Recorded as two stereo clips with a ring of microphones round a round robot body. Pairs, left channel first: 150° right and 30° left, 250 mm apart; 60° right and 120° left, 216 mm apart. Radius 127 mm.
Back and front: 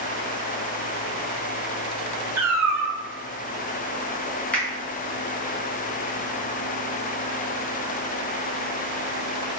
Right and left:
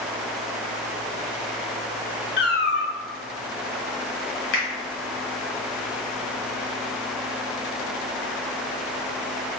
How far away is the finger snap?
About 1.2 m.